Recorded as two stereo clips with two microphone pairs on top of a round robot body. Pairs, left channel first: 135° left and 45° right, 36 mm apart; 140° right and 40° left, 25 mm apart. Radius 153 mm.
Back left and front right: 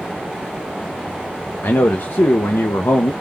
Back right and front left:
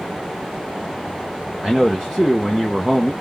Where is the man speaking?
125° left, 0.5 m.